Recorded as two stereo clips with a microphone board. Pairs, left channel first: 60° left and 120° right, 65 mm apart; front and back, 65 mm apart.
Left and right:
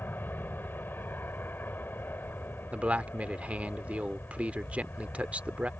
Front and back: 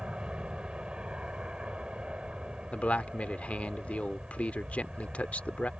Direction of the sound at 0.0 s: 110° left.